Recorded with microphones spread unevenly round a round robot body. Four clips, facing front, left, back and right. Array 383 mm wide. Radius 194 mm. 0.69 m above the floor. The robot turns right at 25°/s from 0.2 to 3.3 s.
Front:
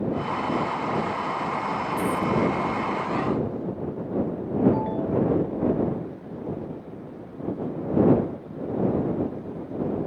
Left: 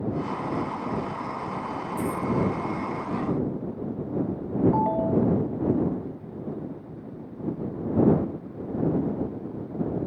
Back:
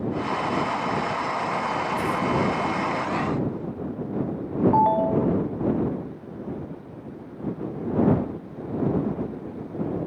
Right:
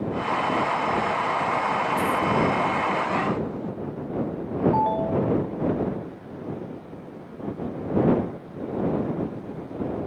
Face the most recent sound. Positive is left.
turn(degrees=-165)